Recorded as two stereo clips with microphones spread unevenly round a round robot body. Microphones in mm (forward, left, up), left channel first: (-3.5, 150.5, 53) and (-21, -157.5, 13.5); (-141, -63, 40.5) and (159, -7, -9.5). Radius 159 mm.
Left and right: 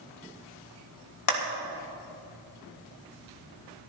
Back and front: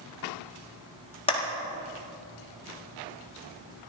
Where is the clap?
115° left, 1.9 m.